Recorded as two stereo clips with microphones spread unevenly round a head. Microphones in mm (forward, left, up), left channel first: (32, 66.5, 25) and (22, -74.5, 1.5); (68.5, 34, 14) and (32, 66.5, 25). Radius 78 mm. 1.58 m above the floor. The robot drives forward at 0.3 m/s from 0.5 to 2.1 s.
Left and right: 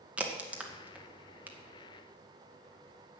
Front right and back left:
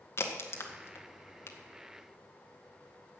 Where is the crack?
10° right, 1.8 m; by 1.6 s 15° right, 1.5 m.